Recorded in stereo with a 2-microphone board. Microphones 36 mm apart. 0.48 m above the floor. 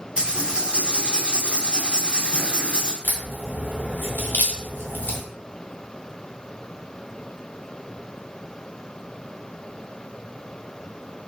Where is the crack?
70° left (ahead or behind), 0.9 m.